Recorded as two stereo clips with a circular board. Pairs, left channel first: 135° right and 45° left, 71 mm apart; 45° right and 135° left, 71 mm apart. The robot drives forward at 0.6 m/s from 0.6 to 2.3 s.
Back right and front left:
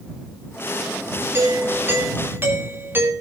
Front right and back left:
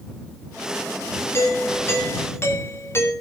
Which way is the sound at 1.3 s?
Straight ahead.